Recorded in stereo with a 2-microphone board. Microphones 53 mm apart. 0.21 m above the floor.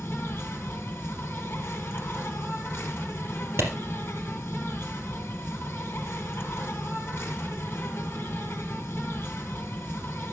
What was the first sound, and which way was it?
An insect, 45° left (ahead or behind).